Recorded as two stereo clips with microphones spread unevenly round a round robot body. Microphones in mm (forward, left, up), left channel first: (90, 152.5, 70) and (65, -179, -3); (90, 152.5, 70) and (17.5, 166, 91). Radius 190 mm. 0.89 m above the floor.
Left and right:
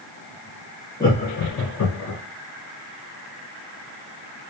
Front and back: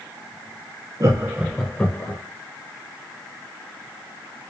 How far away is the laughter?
About 0.5 m.